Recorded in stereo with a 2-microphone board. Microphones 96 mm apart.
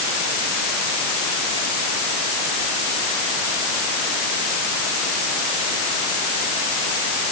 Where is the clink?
No clink in this recording.